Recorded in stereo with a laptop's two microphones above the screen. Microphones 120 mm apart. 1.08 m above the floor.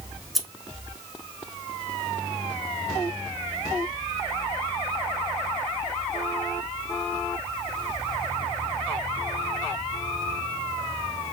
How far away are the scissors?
About 0.6 m.